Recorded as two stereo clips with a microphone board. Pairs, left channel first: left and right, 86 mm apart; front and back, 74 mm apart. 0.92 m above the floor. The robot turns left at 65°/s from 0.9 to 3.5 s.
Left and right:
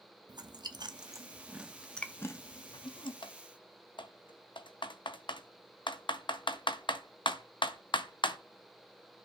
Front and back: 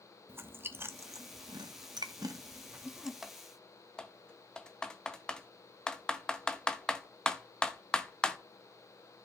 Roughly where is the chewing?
Behind right.